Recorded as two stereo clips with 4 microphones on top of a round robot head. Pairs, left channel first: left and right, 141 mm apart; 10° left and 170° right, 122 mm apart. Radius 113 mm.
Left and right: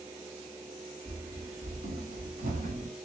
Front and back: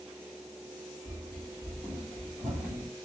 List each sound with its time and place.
1.1 s running footsteps: 100° right, 1.1 m; by 2.9 s 75° right, 1.9 m